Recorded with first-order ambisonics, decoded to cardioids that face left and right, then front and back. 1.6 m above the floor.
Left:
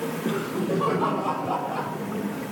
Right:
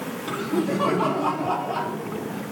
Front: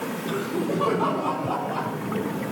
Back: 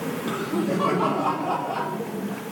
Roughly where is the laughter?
Behind right.